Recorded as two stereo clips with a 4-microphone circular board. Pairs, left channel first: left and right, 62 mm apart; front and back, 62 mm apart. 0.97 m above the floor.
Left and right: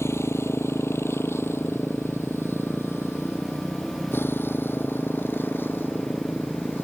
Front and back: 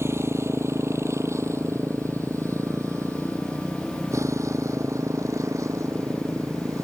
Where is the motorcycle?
135° left; by 6.8 s 145° left.